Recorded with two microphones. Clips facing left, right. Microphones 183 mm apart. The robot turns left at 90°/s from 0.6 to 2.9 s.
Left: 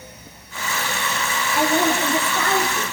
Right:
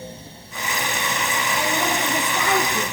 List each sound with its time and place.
1.5 s a woman speaking: 75° left, 5.5 m; by 2.8 s 40° right, 5.5 m